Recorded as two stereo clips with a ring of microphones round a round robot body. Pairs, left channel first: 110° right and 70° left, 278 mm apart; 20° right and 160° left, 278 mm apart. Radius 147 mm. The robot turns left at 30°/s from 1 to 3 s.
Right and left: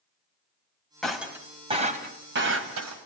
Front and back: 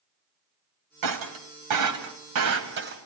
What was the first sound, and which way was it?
Breaking glass, 160° left.